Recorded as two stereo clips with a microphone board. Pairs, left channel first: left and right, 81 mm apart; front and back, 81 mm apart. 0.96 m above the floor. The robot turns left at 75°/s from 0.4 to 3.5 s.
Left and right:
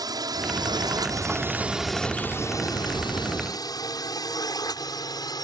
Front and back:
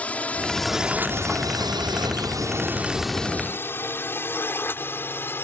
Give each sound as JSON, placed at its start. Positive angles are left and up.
{"t": 0.0, "sound": "a drone", "azimuth_deg": -70}